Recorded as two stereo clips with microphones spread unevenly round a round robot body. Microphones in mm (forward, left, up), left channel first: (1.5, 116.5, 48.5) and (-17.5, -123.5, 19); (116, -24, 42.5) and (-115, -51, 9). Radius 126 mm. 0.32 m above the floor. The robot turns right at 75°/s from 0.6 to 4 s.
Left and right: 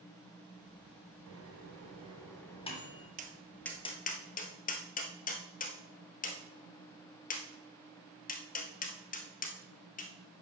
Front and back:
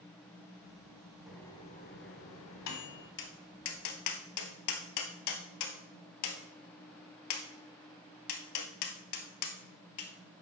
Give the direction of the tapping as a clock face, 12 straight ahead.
1 o'clock.